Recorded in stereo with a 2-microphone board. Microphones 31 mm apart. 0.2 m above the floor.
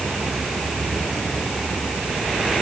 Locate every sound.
Only background noise.